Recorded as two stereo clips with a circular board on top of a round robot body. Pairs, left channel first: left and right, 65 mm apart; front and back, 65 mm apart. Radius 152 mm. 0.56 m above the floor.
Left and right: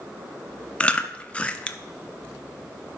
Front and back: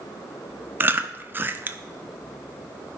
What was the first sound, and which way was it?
Chewing, 150° left.